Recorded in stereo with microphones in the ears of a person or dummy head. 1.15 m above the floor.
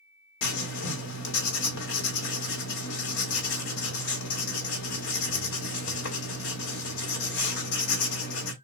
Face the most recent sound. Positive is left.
turn(degrees=70)  # may be behind; listen again after turning